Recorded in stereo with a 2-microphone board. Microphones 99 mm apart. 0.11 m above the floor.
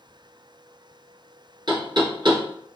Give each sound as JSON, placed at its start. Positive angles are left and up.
{"t": 1.7, "sound": "knocking", "side_deg": -45, "distance_m": 2.0}